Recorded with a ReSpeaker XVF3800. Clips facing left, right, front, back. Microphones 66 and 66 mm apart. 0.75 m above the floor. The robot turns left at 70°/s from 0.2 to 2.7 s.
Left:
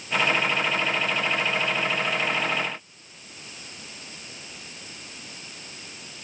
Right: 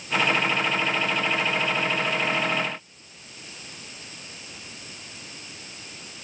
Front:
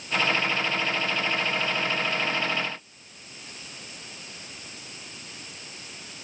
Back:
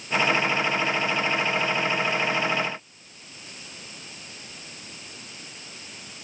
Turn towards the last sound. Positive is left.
No sound to turn to.